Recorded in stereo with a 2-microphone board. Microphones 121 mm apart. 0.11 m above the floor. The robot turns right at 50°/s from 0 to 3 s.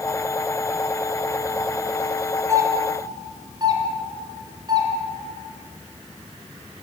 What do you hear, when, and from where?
2.5 s a doorbell: 25° right (ahead or behind), 2 m; by 4.9 s 35° right (ahead or behind), 2 m